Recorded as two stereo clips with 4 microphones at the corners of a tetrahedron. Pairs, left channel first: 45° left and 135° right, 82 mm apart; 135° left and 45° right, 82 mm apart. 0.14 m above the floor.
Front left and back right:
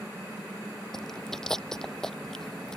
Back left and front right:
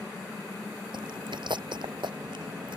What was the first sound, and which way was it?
Chewing, 40° right.